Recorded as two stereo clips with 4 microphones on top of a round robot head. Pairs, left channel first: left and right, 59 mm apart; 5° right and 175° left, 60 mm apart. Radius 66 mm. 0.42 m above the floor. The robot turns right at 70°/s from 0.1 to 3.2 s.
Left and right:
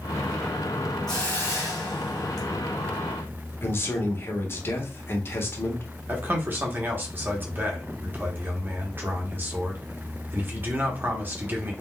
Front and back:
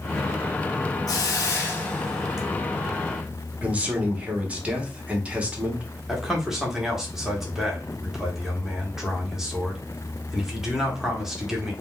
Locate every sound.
1.1 s a hiss: 5° left, 0.8 m; by 2.5 s 100° left, 0.8 m
3.6 s a man speaking: 120° left, 1.0 m
6.1 s a man speaking: 105° right, 1.0 m